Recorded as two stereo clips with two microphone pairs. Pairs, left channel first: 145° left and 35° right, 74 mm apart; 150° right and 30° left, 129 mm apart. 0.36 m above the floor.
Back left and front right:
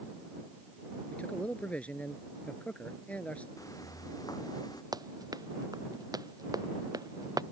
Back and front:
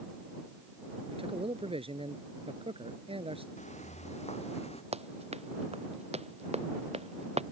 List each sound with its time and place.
1.1 s a man speaking: 70° left
3.6 s footsteps: 175° right; by 4.8 s 170° left
4.9 s running footsteps: 5° right